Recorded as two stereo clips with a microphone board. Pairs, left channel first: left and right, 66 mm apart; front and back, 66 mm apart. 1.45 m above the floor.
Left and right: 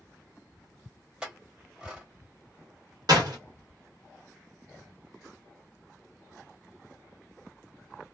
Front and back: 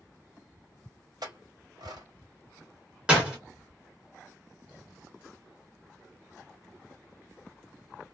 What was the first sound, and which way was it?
A clink, 165° right.